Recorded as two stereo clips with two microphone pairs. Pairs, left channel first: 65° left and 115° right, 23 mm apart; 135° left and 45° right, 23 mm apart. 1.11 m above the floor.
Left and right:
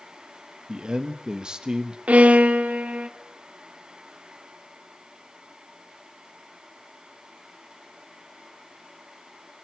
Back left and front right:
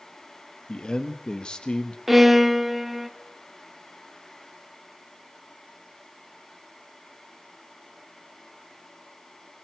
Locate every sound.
0.7 s a man speaking: 170° right, 1.2 m
2.1 s a violin: 125° right, 1.4 m